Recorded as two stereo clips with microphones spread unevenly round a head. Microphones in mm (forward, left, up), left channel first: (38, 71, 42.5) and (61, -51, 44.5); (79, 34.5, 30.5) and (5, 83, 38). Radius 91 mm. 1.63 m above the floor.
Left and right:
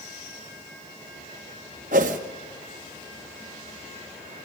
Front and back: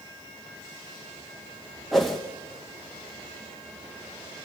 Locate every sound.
1.9 s a whoosh: 125° right, 1.2 m